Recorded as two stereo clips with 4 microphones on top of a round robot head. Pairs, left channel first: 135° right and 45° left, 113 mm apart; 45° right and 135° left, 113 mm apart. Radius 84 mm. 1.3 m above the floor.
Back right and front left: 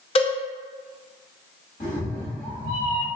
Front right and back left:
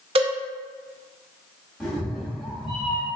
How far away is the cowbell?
About 0.5 m.